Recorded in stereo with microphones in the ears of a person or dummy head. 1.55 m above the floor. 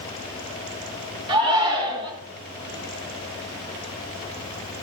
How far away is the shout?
About 2.5 m.